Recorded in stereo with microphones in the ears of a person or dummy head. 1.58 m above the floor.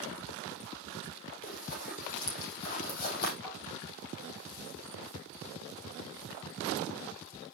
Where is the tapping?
25° left (ahead or behind), 5 m.